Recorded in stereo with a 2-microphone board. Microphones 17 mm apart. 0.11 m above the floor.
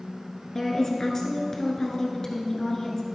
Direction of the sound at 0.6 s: 30° left (ahead or behind).